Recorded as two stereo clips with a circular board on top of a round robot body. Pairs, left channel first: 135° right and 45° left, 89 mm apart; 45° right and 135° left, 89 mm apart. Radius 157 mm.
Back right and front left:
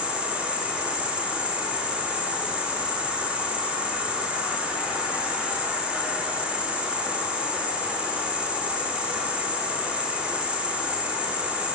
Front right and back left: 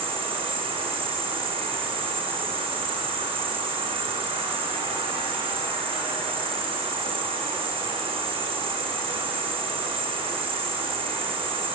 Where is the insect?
120° left, 5.5 m.